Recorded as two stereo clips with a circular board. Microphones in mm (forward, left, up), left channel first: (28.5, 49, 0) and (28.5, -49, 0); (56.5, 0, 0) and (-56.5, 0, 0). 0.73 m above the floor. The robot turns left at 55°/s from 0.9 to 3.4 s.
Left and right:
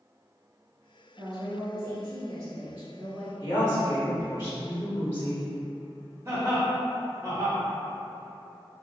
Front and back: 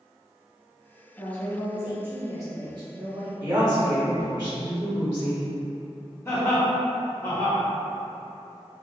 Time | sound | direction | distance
1.2 | a woman speaking | 65° right | 0.6 m
3.4 | a woman speaking | 125° left | 1.1 m
6.2 | laughter | 50° right | 1.0 m